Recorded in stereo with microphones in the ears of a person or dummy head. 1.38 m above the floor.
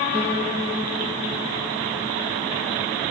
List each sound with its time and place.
0.1 s a piano: 20° right (ahead or behind), 3 m